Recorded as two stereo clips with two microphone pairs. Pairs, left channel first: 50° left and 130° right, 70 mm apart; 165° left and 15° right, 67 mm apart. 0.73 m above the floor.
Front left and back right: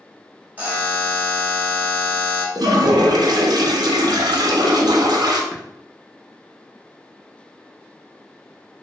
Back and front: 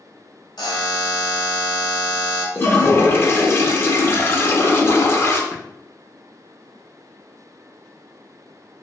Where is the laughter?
No laughter in this recording.